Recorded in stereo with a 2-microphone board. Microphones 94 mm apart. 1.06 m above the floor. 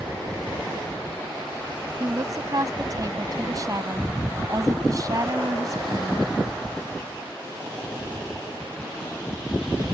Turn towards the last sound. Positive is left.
turn(degrees=-40)  # may be behind; listen again after turning